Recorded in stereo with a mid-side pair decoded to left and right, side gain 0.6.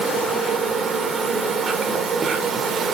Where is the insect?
30° right, 0.9 m.